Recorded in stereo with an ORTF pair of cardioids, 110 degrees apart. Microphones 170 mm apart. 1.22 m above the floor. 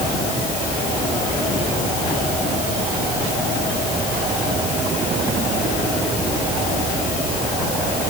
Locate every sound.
Only background noise.